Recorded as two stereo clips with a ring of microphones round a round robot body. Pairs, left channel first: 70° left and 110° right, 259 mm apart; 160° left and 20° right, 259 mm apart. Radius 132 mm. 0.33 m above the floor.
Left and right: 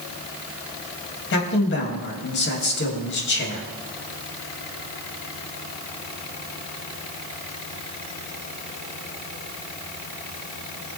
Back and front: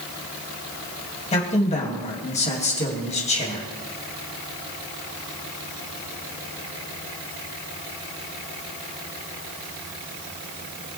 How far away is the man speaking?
About 2.5 m.